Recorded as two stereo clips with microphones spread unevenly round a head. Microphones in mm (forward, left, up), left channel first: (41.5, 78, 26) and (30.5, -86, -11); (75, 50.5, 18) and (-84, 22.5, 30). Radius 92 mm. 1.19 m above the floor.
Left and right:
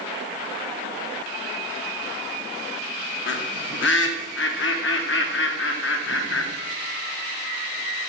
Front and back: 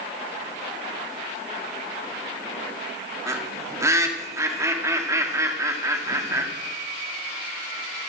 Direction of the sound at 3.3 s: 115° left.